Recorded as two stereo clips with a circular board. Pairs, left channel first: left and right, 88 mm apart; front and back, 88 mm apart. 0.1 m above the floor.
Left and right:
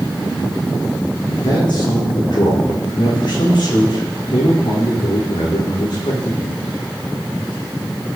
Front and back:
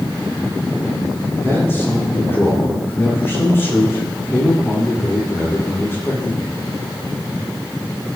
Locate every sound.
1.4 s a man speaking: 65° left, 6 m